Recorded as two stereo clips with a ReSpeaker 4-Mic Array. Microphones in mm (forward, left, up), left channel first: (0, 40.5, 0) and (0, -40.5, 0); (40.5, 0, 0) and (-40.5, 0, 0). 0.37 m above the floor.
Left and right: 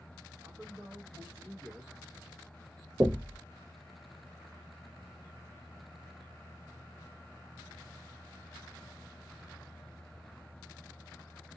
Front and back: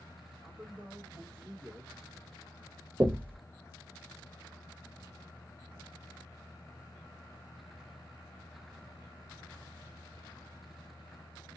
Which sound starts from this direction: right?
A man speaking, at 0.4 s.